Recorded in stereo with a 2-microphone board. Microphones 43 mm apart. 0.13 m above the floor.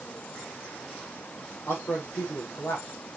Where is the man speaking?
75° left (ahead or behind), 5 m.